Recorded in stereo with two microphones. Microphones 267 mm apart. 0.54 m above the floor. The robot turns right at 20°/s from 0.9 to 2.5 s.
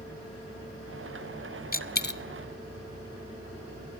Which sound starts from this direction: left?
A dropped coin, at 1.7 s.